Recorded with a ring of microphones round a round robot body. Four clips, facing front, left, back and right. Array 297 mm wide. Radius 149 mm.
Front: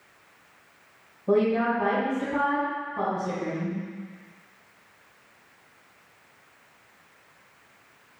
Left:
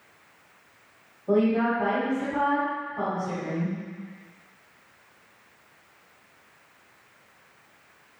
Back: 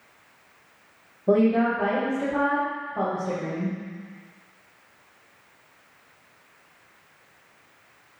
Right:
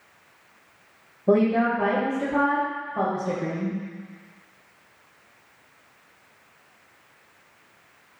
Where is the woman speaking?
125° right, 2.5 m.